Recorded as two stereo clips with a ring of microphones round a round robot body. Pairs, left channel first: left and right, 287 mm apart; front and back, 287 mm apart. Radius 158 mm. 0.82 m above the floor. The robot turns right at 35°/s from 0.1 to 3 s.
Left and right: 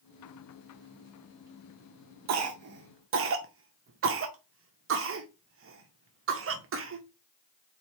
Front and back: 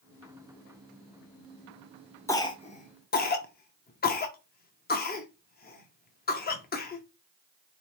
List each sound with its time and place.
2.3 s a cough: 80° right, 0.7 m; by 7.0 s 55° right, 0.7 m